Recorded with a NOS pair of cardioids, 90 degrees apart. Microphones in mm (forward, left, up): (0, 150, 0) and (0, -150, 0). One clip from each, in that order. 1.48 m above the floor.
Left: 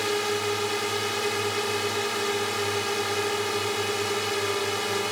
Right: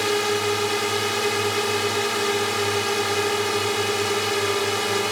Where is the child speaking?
I don't hear a child speaking.